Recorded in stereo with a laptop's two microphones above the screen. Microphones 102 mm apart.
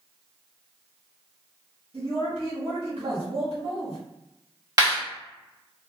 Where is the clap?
30° right (ahead or behind), 1.5 m.